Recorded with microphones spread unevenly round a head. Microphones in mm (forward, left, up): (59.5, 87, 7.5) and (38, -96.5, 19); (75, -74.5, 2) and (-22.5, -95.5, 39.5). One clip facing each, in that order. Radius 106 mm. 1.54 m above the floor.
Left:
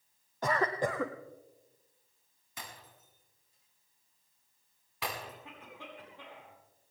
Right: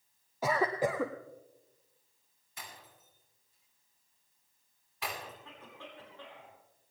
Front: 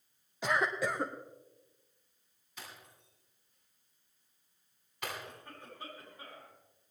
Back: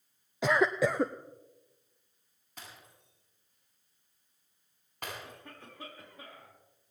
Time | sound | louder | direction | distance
0.4 | a cough | right 1 dB, back 6 dB | straight behind | 0.6 m
2.6 | breaking glass | left 2 dB, even | 125° left | 7.5 m
5.2 | a cough | left 1 dB, even | 160° left | 6 m